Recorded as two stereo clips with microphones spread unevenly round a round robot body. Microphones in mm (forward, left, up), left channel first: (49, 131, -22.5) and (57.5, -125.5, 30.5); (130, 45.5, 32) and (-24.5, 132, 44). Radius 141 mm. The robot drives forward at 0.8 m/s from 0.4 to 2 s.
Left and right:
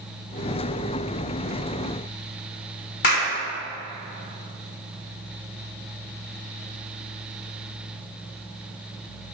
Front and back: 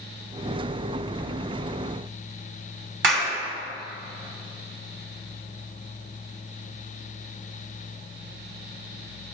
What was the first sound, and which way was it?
A clap, 150° left.